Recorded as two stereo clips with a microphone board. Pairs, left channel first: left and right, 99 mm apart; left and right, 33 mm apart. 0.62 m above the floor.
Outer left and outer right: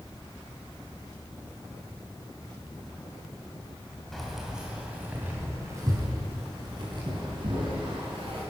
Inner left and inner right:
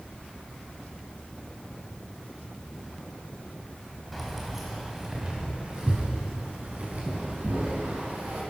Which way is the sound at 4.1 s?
Centre (ahead or behind).